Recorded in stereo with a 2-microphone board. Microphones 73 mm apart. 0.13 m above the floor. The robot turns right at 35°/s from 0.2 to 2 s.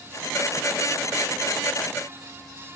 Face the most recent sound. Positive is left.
No sound to turn to.